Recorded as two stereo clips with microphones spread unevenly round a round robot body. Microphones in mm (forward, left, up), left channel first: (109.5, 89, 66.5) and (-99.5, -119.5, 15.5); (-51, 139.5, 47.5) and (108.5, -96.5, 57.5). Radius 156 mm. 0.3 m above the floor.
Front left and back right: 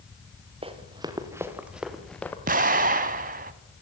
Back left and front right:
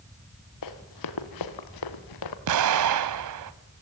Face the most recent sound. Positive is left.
turn(degrees=-75)